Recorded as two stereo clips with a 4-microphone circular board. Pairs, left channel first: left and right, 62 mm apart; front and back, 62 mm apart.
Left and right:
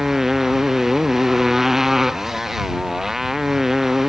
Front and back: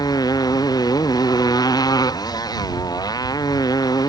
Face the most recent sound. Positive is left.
turn(degrees=-5)